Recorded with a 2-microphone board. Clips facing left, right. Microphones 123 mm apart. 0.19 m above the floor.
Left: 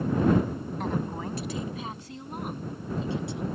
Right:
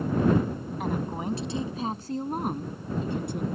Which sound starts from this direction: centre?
A woman speaking, at 0.8 s.